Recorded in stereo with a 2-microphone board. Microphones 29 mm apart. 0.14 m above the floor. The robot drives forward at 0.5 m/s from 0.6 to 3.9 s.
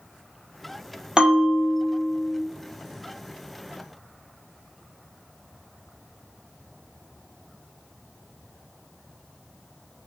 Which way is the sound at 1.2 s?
35° right (ahead or behind).